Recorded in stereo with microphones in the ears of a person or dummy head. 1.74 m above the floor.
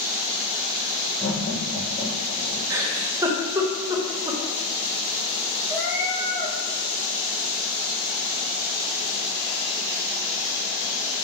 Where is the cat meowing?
10° right (ahead or behind), 2 m.